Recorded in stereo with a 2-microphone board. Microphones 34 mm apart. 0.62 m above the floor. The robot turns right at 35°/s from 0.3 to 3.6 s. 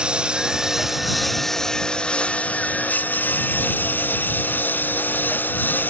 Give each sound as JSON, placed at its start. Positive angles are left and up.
{"t": 0.0, "sound": "a lawn mower", "azimuth_deg": -30}